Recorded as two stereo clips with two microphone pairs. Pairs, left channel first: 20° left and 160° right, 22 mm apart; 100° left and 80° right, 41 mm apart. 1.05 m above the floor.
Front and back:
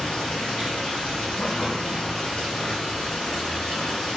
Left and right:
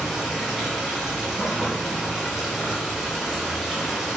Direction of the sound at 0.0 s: Straight ahead.